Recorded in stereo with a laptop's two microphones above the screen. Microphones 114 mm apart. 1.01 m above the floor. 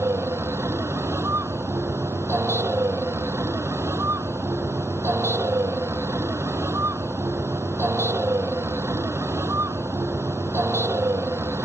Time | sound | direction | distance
0.0 | a vehicle | 25° right (ahead or behind) | ?